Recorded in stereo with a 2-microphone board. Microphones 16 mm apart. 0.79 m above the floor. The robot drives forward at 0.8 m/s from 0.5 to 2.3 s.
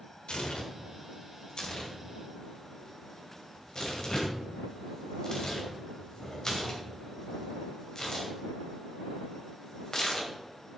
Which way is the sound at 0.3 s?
75° left (ahead or behind).